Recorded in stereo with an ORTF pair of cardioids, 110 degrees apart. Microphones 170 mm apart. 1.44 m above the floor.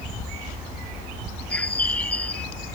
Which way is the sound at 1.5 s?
10° left.